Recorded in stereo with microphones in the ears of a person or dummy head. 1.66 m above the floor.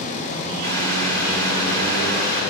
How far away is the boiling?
About 4.5 m.